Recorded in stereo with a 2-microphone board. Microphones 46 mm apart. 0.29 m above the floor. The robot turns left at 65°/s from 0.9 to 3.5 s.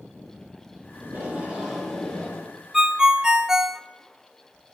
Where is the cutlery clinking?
No cutlery clinking in this recording.